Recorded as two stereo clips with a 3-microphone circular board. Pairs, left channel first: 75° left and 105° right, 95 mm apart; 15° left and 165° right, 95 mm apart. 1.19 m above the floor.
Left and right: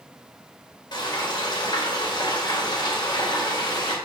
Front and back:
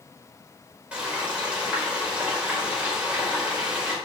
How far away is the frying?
About 4 m.